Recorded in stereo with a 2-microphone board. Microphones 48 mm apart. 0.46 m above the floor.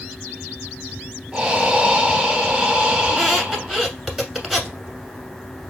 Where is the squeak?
5° right (ahead or behind), 1.1 m.